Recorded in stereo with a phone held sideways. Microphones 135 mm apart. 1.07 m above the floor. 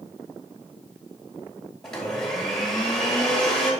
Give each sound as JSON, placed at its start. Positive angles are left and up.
{"t": 1.8, "sound": "a blender", "side_deg": 5, "distance_m": 2.5}